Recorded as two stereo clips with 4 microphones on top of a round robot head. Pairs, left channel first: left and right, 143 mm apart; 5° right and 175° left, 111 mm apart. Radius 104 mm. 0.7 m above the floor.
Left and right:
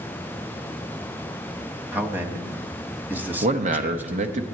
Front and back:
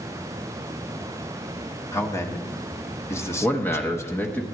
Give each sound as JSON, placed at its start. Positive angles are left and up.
{"t": 1.9, "sound": "a man speaking", "azimuth_deg": -30, "distance_m": 1.1}
{"t": 3.4, "sound": "a man speaking", "azimuth_deg": -80, "distance_m": 0.9}